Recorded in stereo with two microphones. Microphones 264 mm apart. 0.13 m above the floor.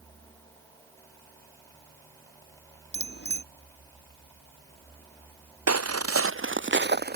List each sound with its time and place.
2.9 s a bicycle bell: 40° left (ahead or behind)
5.7 s footsteps: 70° right (ahead or behind); by 7.2 s 35° right (ahead or behind)